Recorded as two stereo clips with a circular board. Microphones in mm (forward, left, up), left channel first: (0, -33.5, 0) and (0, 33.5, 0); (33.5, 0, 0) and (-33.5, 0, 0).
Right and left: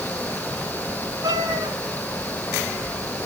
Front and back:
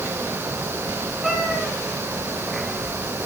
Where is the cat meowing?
95° left, 3.5 m.